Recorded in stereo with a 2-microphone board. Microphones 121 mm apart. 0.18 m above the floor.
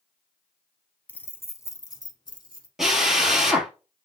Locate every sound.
1.1 s keys jangling: 10° left (ahead or behind), 0.8 m; by 2.7 s 40° left (ahead or behind), 1.3 m
2.8 s a drill: centre (ahead or behind), 1.6 m